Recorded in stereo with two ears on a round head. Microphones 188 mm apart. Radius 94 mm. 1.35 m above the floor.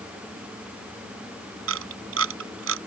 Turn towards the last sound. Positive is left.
turn(degrees=-75)  # may be behind; listen again after turning